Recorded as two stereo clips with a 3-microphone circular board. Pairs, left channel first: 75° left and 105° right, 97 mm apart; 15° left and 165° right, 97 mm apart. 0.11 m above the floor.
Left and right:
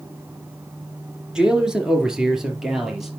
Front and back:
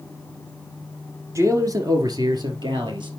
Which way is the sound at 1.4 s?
175° left.